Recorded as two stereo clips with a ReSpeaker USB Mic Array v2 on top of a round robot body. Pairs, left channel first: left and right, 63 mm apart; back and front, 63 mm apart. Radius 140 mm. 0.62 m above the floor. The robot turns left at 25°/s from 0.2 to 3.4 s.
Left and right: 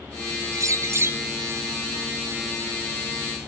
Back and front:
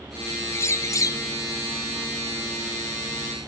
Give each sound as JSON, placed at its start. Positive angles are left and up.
{"t": 0.5, "sound": "a bird", "azimuth_deg": -130}